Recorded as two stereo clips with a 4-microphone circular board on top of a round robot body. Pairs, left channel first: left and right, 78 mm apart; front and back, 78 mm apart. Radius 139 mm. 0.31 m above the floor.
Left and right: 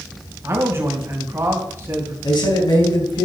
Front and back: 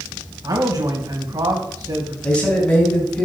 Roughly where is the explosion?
I don't hear an explosion.